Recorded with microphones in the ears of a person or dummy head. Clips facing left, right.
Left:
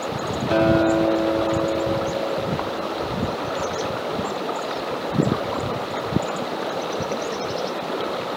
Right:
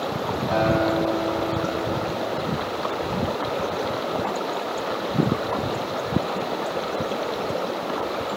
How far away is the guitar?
About 3.5 m.